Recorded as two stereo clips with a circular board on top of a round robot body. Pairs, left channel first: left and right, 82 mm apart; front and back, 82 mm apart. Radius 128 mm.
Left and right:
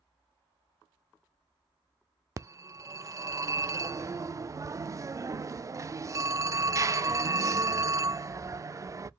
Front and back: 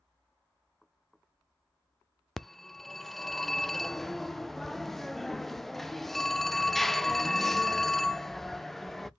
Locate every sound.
2.4 s a phone ringing: 85° right, 0.5 m